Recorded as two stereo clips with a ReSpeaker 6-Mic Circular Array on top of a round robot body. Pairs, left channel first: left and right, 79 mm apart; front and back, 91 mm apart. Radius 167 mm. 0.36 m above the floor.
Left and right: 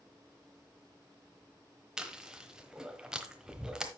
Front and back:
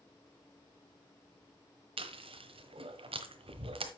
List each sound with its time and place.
2.0 s chewing: 170° right, 1.2 m